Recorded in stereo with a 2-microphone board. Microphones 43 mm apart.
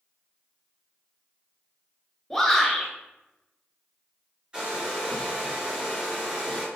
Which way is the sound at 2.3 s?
5° left (ahead or behind).